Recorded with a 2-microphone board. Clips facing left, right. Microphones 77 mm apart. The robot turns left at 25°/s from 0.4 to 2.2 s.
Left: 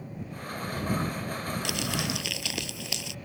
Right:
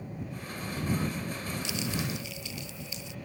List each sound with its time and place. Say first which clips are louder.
1.6 s crumpling: left 1 dB; 60° left (ahead or behind); by 3.1 s 75° left (ahead or behind)